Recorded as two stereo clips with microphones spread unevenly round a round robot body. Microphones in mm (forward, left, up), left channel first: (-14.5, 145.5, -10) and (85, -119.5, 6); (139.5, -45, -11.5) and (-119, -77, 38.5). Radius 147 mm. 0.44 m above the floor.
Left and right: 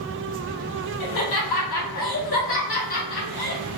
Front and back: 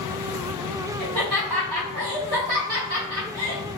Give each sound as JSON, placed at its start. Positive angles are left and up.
{"t": 1.0, "sound": "laughter", "azimuth_deg": 150, "distance_m": 1.9}